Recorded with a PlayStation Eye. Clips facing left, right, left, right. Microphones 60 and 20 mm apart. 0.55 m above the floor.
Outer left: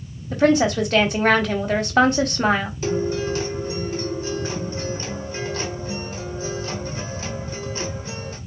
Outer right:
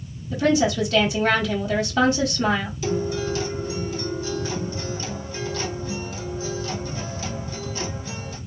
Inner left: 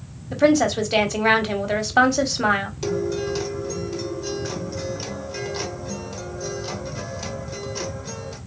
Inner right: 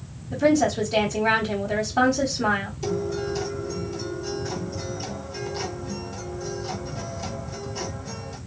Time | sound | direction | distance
0.3 | a woman speaking | 55° left (ahead or behind) | 1.2 m
2.8 | a guitar | 35° left (ahead or behind) | 1.6 m